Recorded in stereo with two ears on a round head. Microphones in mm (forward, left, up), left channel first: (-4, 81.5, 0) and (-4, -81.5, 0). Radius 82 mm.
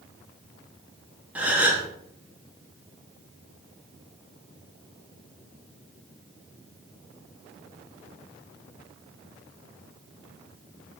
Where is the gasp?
10° right (ahead or behind), 1.7 m.